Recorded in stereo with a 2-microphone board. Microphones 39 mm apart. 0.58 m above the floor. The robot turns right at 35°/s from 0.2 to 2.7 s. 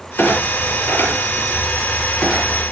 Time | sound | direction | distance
0.2 | a clunk | 85° left | 6.5 m